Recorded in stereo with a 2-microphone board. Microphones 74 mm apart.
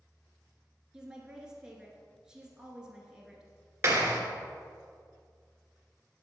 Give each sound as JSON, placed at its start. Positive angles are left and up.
{"t": 0.9, "sound": "a woman speaking", "side_deg": -10, "distance_m": 1.5}
{"t": 3.8, "sound": "a clap", "side_deg": -35, "distance_m": 1.4}